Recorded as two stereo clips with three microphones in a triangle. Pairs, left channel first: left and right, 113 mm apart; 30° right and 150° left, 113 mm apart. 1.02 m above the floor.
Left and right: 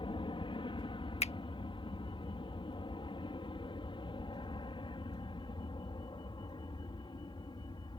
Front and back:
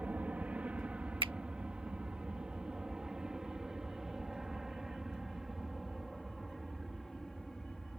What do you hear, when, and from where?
0.0 s an aircraft: 75° left; by 8.0 s 55° left
1.2 s a finger snap: 110° left